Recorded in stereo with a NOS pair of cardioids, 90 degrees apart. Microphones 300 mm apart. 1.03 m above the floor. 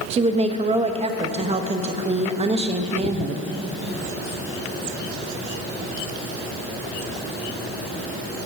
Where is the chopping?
No chopping in this recording.